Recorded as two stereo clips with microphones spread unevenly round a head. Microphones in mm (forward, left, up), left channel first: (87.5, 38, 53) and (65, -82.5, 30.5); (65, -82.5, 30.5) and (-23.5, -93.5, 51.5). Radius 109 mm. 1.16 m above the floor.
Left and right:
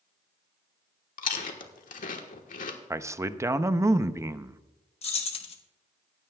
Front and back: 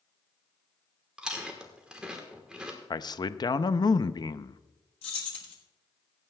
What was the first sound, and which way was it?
Chewing, 95° left.